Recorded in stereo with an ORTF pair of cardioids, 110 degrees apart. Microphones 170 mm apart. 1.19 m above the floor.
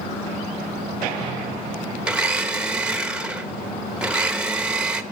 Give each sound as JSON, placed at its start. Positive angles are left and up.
{"t": 2.0, "sound": "a blender", "azimuth_deg": -5, "distance_m": 1.1}